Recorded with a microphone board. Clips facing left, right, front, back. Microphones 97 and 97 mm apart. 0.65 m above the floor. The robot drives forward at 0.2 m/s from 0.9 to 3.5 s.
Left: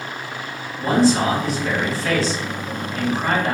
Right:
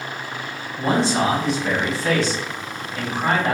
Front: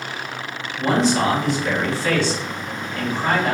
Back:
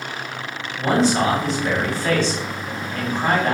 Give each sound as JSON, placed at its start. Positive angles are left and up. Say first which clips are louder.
{"t": 0.8, "sound": "a man speaking", "louder": "left 3 dB, even", "azimuth_deg": -140, "distance_m": 1.3}